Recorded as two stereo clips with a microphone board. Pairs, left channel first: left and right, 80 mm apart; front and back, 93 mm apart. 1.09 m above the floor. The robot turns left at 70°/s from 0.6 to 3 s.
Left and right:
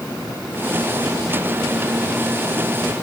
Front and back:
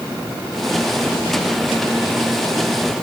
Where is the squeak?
I don't hear a squeak.